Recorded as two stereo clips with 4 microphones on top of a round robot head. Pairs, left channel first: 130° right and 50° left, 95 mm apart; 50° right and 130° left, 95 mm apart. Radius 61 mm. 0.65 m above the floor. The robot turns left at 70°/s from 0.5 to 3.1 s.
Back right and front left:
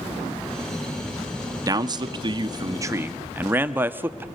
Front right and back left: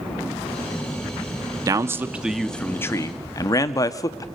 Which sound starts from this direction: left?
A man speaking, at 1.7 s.